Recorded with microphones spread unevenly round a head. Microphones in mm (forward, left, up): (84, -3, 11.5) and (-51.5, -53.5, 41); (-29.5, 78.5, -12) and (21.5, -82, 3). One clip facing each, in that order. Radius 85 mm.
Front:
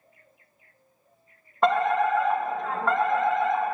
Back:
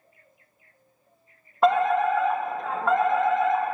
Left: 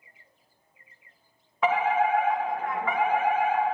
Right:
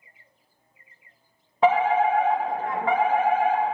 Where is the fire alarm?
50° right, 1.0 m.